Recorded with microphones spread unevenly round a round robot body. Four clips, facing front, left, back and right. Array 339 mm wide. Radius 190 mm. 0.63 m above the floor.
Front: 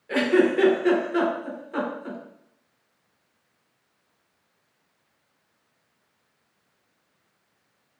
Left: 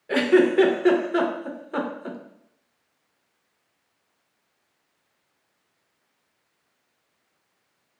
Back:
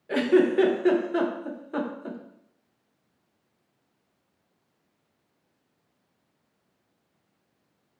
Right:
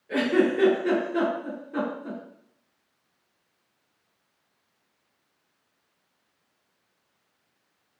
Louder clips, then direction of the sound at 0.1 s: Left 4 dB, front 1 dB; 75° left.